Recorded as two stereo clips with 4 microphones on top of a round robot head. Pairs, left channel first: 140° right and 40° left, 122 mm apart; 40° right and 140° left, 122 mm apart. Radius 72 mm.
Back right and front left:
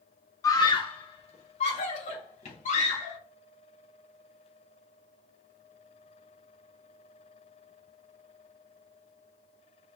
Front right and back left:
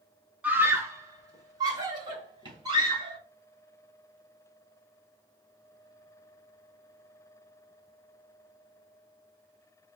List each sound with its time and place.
0.4 s a scream: 155° right, 1.0 m; by 3.2 s 165° right, 3.5 m